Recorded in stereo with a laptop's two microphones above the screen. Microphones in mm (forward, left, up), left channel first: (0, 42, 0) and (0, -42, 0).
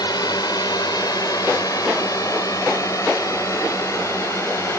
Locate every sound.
0.0 s a drone: 55° left (ahead or behind); by 4.8 s 35° left (ahead or behind)